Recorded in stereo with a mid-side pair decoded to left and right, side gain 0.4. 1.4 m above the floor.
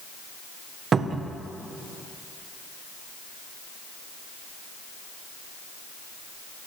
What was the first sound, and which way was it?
A cupboard door, 55° right.